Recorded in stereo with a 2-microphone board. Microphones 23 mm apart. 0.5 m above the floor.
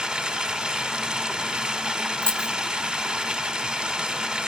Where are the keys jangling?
45° left (ahead or behind), 0.9 m.